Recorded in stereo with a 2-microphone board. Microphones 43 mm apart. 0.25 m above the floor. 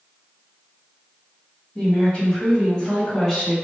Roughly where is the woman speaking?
Left.